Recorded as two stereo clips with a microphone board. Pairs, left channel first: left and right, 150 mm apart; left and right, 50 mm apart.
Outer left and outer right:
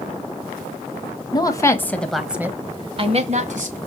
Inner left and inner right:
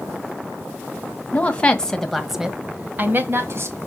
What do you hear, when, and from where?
1.3 s a woman speaking: 25° left (ahead or behind), 1.8 m; by 3.8 s 60° right (ahead or behind), 1.8 m